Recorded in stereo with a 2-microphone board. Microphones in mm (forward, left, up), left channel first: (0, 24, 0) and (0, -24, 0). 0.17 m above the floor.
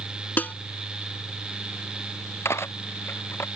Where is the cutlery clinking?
60° left (ahead or behind).